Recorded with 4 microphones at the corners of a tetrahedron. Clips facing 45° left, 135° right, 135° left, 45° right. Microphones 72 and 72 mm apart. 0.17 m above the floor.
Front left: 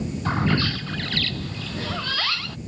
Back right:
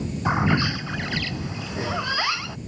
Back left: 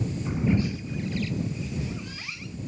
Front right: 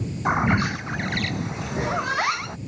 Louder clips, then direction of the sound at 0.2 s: Back right 2 dB, front right 6 dB; 60° right.